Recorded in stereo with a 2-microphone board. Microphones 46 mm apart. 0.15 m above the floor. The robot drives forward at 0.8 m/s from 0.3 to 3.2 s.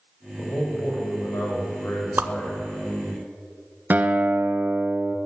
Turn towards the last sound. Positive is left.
turn(degrees=-40)  # may be behind; listen again after turning